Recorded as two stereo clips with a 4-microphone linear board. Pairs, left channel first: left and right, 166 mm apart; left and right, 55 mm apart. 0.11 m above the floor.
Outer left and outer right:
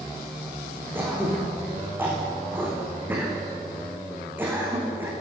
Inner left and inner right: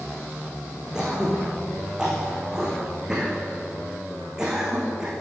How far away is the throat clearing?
About 5.5 m.